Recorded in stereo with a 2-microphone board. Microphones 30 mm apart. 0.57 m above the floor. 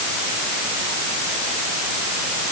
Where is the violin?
I don't hear a violin.